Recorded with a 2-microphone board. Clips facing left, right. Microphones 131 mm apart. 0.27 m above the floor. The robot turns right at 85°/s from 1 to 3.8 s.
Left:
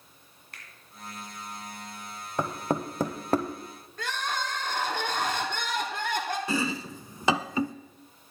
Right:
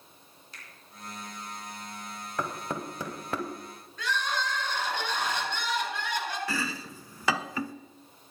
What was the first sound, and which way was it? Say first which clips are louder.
A finger snap: left 1 dB; 65° left (ahead or behind).